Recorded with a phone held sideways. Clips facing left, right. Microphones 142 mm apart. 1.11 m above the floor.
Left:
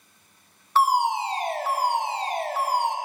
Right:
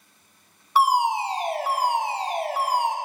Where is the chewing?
No chewing in this recording.